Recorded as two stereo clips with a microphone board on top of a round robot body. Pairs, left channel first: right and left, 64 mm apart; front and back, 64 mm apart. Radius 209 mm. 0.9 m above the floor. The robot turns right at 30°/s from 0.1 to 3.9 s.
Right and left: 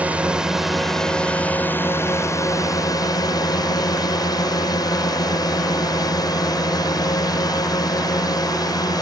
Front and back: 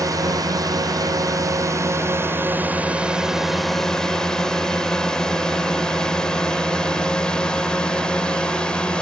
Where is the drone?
160° left; by 9.0 s 75° right.